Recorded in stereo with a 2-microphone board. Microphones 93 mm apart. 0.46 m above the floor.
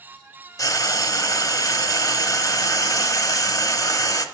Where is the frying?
40° left (ahead or behind), 1.0 m.